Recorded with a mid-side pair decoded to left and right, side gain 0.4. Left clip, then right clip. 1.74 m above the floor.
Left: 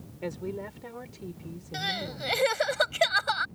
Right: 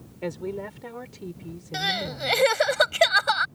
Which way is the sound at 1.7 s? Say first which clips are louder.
Right 5 dB; 35° right.